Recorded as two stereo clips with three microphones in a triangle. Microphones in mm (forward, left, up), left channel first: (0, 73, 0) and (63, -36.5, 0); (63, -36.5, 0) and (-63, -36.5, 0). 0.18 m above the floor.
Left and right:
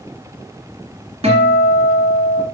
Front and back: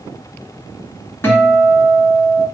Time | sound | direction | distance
1.2 | a guitar | 65° right | 2.5 m